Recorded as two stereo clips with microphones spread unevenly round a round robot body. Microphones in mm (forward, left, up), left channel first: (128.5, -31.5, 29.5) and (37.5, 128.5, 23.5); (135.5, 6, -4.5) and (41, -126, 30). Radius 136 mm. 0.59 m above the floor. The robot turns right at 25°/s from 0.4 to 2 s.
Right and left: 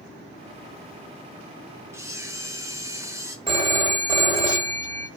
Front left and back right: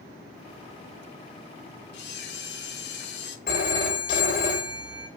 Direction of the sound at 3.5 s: 60° left.